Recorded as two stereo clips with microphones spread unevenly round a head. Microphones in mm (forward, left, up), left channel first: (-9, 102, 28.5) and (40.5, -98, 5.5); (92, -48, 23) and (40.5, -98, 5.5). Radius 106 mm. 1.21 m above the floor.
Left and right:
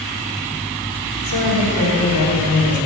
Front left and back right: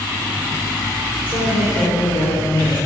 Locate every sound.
1.2 s a woman speaking: 110° left, 4 m